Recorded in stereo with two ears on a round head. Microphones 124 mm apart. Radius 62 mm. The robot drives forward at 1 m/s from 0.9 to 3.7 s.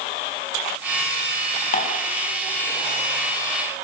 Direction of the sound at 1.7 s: 50° left (ahead or behind).